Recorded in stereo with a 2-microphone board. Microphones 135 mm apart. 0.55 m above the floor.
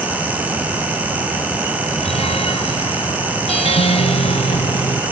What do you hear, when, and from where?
2.0 s a guitar: 50° left (ahead or behind)